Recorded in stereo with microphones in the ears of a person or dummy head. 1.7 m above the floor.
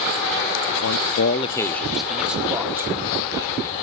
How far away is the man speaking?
About 0.7 m.